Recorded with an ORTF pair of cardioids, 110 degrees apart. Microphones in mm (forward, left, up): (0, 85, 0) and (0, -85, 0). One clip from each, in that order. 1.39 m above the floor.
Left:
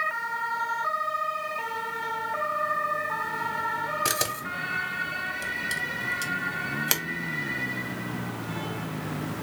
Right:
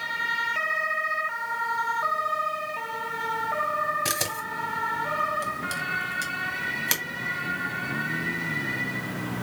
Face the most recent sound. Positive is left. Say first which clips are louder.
# even
turn(degrees=5)